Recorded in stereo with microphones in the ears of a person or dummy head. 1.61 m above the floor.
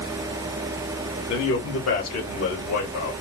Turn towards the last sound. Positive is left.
turn(degrees=85)